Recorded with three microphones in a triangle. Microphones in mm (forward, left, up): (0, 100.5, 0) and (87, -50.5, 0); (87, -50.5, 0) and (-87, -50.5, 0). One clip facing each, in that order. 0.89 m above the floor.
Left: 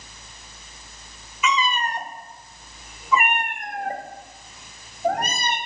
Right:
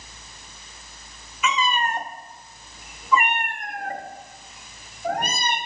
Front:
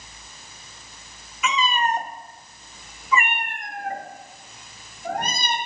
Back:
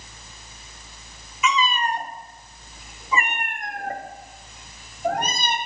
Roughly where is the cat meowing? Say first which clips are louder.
Even, even; ahead right.